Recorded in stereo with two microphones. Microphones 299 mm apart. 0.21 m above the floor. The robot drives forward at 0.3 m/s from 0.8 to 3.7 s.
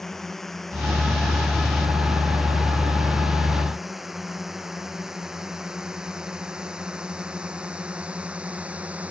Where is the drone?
Centre (ahead or behind); by 9.1 s 5° right (ahead or behind).